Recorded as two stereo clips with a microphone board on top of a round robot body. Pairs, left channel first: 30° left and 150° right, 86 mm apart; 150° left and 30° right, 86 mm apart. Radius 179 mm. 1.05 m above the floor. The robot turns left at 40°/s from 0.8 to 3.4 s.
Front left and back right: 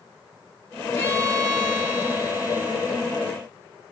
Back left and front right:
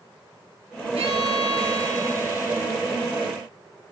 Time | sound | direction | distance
0.9 | a violin | 30° right | 7.5 m